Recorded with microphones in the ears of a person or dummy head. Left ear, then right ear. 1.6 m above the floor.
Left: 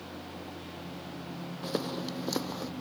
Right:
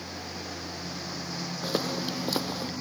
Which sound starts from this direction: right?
A lawn mower, at 0.0 s.